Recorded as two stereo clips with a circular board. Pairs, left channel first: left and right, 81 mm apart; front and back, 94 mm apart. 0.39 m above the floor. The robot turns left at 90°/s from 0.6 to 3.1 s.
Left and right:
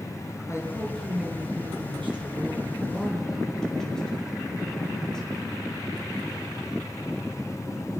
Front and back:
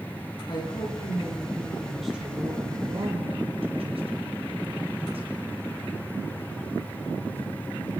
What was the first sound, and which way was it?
A woman speaking, 40° left.